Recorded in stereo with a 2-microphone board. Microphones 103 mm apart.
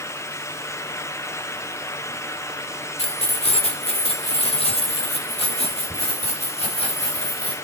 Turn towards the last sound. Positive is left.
turn(degrees=85)